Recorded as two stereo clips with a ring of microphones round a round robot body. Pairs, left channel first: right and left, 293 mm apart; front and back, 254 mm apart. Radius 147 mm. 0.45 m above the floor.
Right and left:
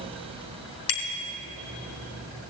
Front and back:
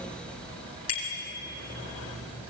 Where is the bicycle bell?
65° right, 4 m.